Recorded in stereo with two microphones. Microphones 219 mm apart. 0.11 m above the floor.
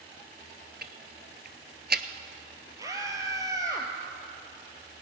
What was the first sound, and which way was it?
Ticking, 50° right (ahead or behind).